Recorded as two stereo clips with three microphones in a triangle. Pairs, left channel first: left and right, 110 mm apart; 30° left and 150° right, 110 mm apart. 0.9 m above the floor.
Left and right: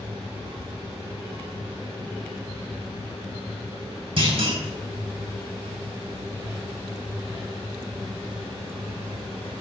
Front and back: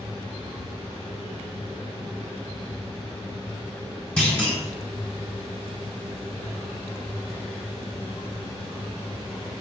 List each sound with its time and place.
4.2 s a clunk: 55° right, 4 m